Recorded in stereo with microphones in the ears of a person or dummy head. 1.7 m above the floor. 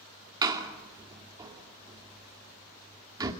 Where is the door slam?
25° right (ahead or behind), 2.5 m.